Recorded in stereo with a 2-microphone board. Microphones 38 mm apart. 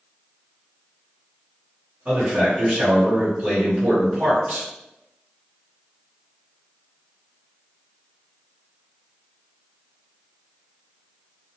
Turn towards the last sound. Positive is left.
turn(degrees=-30)  # may be behind; listen again after turning